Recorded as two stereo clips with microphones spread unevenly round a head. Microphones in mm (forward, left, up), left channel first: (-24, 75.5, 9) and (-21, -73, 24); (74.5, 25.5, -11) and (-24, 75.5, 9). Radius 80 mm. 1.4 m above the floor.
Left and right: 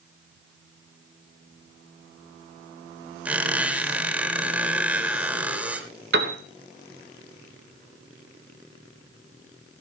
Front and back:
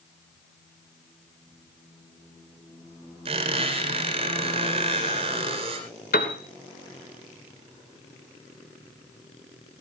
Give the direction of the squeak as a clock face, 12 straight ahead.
6 o'clock.